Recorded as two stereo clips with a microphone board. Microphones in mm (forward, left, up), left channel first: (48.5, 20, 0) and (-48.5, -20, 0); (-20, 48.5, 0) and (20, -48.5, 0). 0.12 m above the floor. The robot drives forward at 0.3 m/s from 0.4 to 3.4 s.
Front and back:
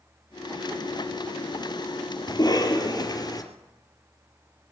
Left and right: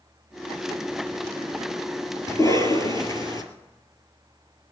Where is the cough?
60° left, 3 m; by 3.4 s 70° left, 3 m.